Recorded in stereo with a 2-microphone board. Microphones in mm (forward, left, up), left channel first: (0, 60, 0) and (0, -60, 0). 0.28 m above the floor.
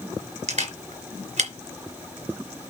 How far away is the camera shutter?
About 3 m.